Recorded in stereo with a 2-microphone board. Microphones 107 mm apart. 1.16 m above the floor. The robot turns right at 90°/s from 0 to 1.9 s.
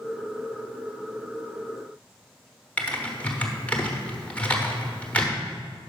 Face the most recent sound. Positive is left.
turn(degrees=15)  # may be behind; listen again after turning